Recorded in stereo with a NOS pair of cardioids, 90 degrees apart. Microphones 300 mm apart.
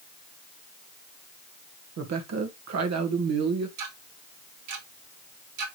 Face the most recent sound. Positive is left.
turn(degrees=-65)